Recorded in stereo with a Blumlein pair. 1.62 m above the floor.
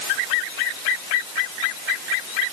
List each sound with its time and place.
Only background noise.